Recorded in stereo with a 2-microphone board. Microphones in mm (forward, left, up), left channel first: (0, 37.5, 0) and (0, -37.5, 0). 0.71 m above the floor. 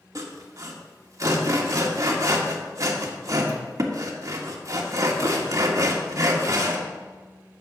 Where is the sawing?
45° right (ahead or behind), 1.3 m.